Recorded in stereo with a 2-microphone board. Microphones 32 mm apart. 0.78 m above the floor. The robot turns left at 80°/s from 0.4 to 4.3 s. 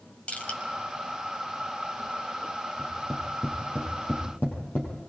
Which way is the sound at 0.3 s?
40° left (ahead or behind).